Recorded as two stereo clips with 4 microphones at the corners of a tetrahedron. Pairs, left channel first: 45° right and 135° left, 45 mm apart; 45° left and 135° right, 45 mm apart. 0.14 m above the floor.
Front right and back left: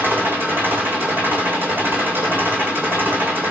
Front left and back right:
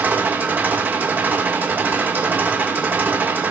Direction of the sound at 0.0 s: 175° left.